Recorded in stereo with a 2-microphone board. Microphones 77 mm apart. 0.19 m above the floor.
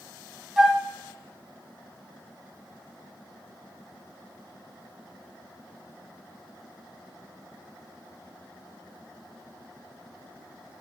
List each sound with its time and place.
0.6 s a flute: 10° right (ahead or behind), 1.1 m